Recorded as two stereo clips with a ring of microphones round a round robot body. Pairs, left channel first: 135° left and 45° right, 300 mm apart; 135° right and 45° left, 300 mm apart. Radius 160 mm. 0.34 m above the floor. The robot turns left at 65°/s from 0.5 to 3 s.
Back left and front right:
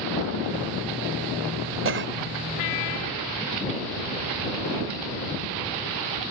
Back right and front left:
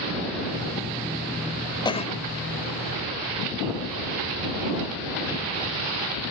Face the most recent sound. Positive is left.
turn(degrees=-140)